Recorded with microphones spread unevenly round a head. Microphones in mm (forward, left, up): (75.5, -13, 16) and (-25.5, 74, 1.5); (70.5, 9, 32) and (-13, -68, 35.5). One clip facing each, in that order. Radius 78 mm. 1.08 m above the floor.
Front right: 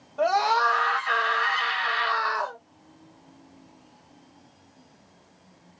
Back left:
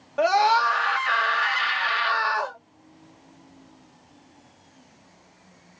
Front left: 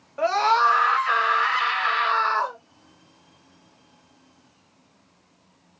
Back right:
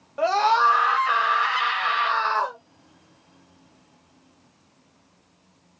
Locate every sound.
0.2 s a scream: 150° left, 1.2 m